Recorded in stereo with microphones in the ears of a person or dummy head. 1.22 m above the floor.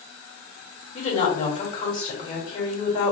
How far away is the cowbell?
I don't hear a cowbell.